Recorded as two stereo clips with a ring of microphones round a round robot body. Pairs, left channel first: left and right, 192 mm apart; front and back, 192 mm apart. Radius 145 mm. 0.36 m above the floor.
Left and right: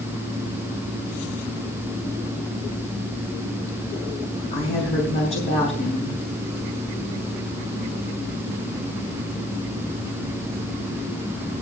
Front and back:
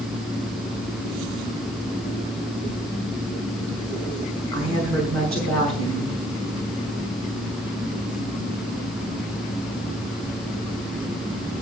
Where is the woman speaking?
145° left, 4.5 m.